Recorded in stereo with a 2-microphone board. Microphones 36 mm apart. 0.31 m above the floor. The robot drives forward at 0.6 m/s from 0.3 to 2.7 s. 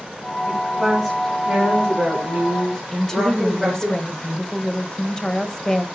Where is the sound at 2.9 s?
20° left (ahead or behind), 1.2 m.